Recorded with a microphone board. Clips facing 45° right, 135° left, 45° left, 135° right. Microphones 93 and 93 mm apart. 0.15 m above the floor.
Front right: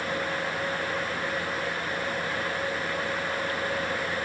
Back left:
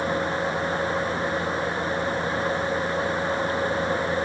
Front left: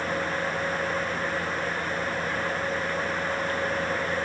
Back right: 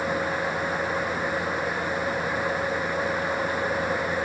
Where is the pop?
No pop in this recording.